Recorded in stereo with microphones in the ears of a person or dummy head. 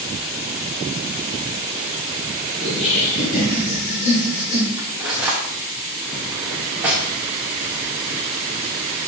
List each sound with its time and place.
2.6 s laughter: 75° left (ahead or behind), 1.4 m; by 4.7 s 60° left (ahead or behind), 3 m
4.8 s cutlery clinking: 5° right (ahead or behind), 0.6 m